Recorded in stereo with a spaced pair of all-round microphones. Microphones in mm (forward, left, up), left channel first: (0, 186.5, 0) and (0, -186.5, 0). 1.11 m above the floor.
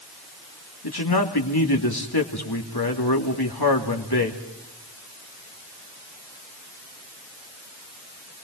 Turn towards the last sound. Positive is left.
turn(degrees=75)  # may be behind; listen again after turning